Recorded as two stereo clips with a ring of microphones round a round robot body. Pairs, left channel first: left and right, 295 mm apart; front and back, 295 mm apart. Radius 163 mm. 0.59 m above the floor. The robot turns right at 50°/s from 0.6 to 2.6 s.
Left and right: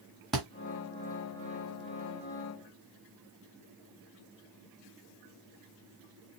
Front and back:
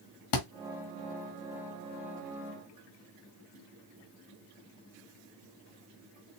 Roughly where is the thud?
Ahead.